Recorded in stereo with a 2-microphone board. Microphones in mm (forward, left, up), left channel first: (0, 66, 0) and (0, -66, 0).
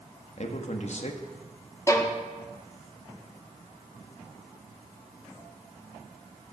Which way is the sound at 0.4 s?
60° left (ahead or behind).